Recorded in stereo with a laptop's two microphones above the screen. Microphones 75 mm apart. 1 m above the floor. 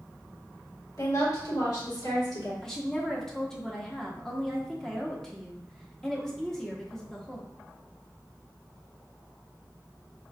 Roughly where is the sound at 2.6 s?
Centre.